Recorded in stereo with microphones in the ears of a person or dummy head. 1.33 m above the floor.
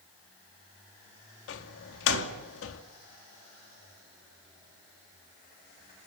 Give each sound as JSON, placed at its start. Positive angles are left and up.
{"t": 1.5, "sound": "a door slam", "side_deg": 80, "distance_m": 2.5}